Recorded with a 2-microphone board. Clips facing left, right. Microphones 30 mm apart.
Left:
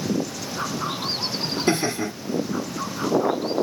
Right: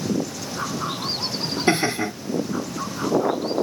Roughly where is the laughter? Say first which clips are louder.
Right 3 dB; right.